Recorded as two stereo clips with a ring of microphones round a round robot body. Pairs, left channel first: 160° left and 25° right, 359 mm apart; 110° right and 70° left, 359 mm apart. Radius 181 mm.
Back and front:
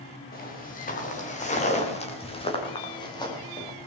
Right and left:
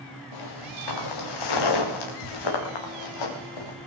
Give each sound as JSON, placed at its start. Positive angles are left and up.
{"t": 0.3, "sound": "footsteps", "azimuth_deg": -135, "distance_m": 9.0}